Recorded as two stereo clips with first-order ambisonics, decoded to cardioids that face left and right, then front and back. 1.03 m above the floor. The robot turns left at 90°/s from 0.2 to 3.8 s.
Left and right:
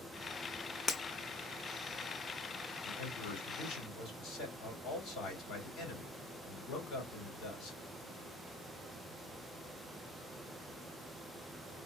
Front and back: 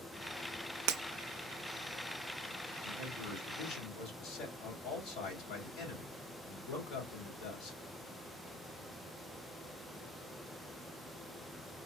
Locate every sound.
0.9 s breaking glass: 170° left, 0.6 m; by 1.0 s 160° left, 0.6 m
2.9 s a man speaking: 125° left, 3 m; by 7.8 s 40° left, 3 m